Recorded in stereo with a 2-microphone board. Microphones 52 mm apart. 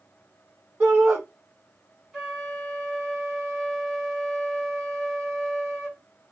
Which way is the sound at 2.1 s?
10° right (ahead or behind).